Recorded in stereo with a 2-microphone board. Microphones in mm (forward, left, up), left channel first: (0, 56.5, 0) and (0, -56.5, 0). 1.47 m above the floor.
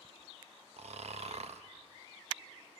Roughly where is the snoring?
Right.